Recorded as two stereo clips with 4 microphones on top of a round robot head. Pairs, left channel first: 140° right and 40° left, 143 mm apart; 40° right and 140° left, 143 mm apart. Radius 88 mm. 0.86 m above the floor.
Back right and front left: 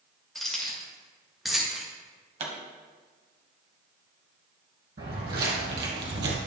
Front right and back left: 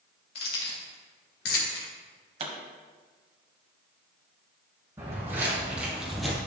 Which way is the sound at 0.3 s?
50° right.